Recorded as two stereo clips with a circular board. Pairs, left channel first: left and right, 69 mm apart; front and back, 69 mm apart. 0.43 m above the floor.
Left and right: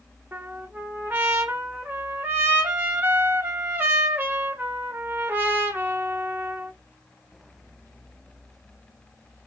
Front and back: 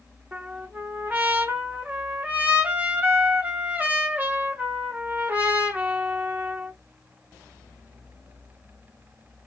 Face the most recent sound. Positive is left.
turn(degrees=-130)